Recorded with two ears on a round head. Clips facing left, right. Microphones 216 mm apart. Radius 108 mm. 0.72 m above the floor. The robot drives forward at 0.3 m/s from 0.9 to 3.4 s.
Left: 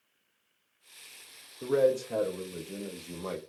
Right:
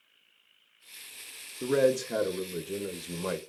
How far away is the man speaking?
About 0.6 m.